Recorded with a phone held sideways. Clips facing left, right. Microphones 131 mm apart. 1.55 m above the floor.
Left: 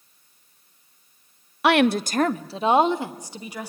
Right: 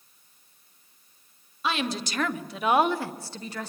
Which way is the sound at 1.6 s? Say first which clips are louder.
Left 11 dB; 75° left (ahead or behind).